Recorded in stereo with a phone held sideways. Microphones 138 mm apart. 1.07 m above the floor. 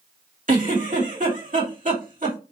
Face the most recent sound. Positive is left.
turn(degrees=-65)  # may be behind; listen again after turning